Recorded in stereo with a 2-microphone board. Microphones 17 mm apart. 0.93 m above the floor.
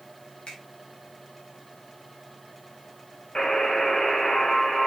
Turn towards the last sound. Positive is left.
turn(degrees=55)  # may be behind; listen again after turning